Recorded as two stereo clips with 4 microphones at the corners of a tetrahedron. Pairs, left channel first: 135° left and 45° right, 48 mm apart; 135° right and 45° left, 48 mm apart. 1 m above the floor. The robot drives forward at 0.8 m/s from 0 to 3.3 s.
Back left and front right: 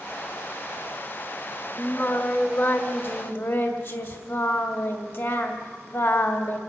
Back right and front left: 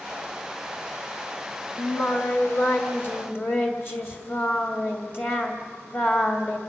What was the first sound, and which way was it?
Singing, 175° right.